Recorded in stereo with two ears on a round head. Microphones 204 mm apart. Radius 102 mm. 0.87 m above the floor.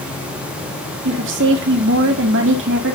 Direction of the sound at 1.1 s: 55° right (ahead or behind).